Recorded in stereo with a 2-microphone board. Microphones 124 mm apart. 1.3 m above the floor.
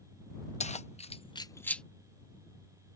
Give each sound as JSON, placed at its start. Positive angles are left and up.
{"t": 0.6, "sound": "keys jangling", "side_deg": 65}